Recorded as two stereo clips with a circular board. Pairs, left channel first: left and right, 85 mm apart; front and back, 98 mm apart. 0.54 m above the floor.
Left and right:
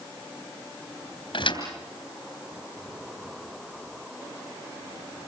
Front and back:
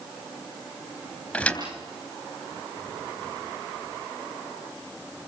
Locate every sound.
1.3 s a thud: 80° left, 3 m